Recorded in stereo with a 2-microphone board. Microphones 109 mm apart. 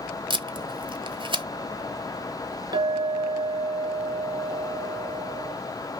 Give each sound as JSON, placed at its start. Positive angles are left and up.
{"t": 0.3, "sound": "tape being pulled", "side_deg": -50, "distance_m": 0.7}
{"t": 2.7, "sound": "a clink", "side_deg": -35, "distance_m": 0.9}